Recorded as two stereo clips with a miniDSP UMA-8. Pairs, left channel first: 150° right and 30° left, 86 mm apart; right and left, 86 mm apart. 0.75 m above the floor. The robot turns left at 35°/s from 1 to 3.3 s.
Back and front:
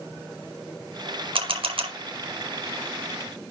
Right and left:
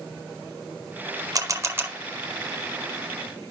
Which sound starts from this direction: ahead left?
A camera shutter, at 1.4 s.